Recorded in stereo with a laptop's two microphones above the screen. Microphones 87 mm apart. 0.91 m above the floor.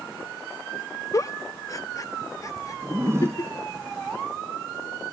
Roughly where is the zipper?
Right.